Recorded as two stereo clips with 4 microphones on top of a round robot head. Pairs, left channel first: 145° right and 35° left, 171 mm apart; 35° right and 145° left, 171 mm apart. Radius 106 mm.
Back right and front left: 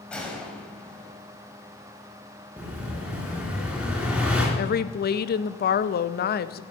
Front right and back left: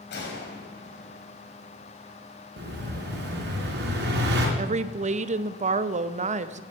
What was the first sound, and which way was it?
A gunshot, 60° right.